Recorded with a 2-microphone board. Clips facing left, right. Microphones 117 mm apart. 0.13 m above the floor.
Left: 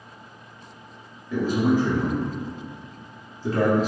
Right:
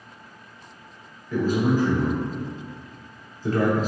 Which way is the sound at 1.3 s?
15° left (ahead or behind).